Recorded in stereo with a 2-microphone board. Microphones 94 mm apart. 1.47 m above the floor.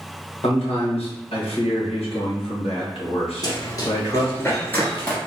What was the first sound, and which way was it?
A man speaking, 85° left.